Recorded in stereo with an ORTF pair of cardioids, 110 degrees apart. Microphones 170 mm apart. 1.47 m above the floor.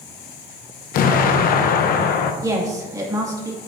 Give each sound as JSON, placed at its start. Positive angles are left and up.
{"t": 0.9, "sound": "an explosion", "azimuth_deg": 60, "distance_m": 0.8}
{"t": 2.4, "sound": "a woman speaking", "azimuth_deg": -20, "distance_m": 2.0}